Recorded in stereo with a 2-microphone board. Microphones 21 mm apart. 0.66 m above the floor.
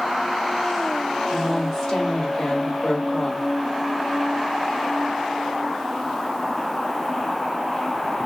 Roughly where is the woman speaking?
Left.